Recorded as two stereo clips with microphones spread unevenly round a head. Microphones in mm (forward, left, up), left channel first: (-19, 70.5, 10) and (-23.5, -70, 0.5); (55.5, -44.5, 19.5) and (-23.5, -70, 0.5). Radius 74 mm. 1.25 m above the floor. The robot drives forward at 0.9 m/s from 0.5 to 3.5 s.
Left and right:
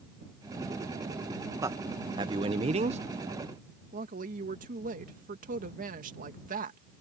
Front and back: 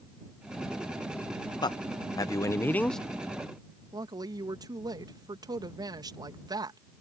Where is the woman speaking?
125° right.